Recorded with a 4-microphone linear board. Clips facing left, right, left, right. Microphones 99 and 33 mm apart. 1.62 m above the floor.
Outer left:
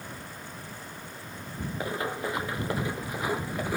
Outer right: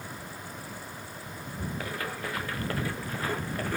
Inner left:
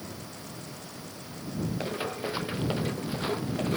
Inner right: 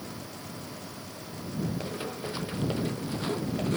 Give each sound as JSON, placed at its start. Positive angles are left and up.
{"t": 1.8, "sound": "running footsteps", "side_deg": 20}